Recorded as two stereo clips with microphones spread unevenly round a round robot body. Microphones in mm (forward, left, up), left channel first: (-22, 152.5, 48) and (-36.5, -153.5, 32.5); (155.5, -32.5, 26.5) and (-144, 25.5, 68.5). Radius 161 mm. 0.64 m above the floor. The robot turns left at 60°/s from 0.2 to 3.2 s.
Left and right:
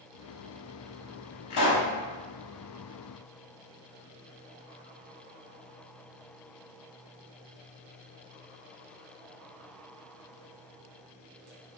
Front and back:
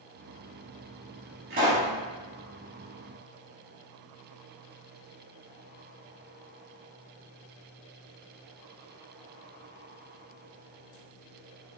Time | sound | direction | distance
1.5 | a pop | 115° left | 1.0 m